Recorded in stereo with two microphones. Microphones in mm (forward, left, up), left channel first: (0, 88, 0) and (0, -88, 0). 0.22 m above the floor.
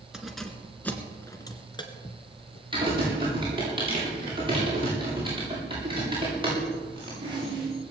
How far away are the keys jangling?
About 2.0 m.